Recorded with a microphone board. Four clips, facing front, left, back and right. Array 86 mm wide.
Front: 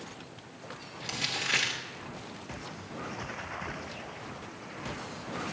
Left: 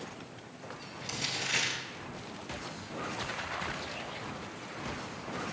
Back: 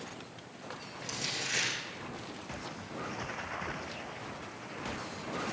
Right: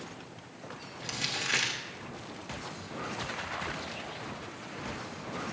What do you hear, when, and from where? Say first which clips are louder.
1.0 s crumpling: right 1 dB, front 4 dB; 40° right, 1.2 m